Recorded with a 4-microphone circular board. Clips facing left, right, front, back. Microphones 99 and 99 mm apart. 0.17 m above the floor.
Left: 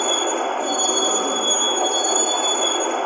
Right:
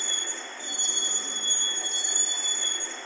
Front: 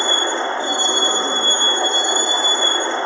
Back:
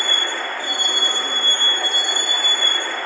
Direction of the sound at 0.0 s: 65° left.